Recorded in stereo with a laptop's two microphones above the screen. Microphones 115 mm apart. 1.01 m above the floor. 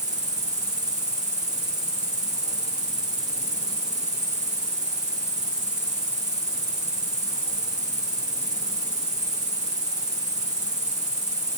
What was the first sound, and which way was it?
An insect, 85° right.